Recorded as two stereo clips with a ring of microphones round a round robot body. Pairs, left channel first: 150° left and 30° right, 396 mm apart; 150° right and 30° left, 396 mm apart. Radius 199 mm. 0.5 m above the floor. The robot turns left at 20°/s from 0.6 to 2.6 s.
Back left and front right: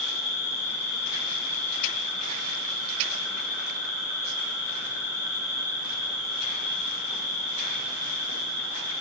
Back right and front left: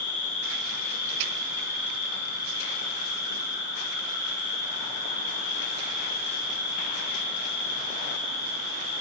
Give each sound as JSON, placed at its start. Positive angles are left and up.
{"t": 0.0, "sound": "an insect", "azimuth_deg": 135, "distance_m": 1.2}